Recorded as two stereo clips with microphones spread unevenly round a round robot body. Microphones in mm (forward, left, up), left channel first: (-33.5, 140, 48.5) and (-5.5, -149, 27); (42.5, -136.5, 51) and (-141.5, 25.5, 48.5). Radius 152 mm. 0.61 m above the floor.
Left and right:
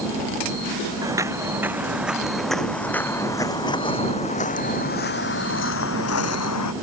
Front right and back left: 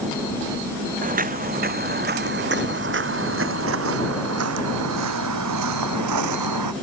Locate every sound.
1.0 s footsteps: 165° right; by 6.7 s 125° left